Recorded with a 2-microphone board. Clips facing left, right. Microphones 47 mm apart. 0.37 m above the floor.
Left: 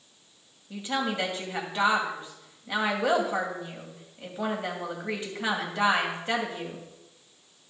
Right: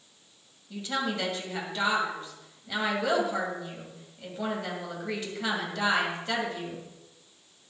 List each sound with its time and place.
0.7 s a woman speaking: 20° left (ahead or behind), 2.5 m